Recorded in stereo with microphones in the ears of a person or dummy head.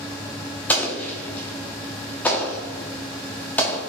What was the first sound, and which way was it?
An explosion, 10° left (ahead or behind).